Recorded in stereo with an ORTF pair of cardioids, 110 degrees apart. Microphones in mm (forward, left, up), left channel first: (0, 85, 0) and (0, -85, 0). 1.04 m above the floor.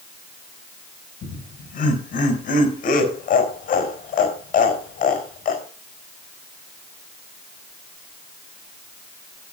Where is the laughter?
55° left, 4 m.